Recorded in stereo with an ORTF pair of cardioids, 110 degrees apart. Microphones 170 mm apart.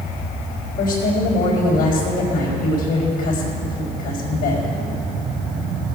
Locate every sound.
0.8 s a woman speaking: 60° left, 4 m